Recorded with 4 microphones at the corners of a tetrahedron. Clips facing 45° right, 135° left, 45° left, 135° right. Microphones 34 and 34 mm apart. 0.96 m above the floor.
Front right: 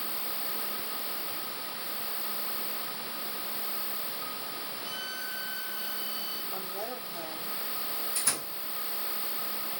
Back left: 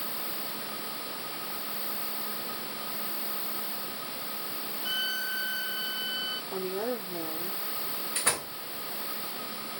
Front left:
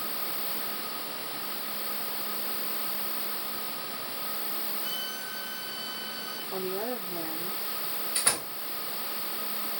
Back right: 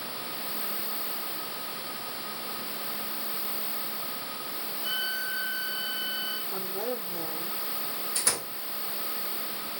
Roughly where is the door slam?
Left.